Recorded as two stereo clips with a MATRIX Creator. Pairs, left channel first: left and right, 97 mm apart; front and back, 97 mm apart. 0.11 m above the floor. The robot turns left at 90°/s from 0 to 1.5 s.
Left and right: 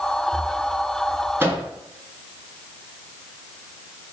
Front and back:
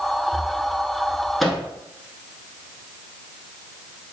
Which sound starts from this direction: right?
A microwave, at 1.4 s.